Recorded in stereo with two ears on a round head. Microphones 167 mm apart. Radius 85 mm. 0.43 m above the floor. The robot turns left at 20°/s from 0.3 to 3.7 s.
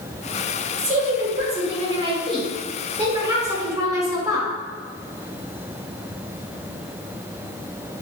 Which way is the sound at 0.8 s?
85° right.